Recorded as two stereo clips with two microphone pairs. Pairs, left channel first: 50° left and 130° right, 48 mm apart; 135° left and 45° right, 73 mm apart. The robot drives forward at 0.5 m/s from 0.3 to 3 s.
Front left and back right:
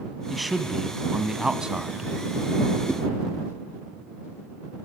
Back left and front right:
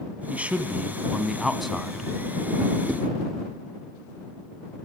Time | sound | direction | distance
0.3 | a man speaking | 35° right | 1.5 m
2.9 | a whoosh | 135° right | 4.5 m